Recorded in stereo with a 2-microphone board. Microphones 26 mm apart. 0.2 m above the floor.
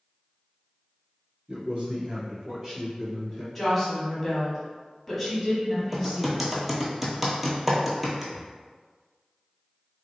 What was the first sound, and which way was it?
A man speaking, 45° right (ahead or behind).